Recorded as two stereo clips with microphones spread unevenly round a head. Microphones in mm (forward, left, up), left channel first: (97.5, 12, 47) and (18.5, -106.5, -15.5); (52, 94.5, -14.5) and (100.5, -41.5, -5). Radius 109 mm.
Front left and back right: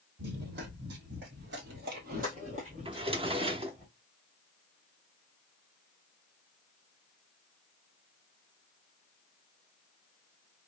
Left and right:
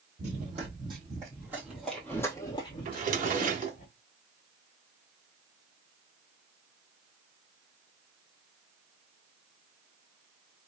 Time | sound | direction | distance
0.2 | running footsteps | 105° right | 1.6 m
2.9 | a drawer | 55° right | 0.9 m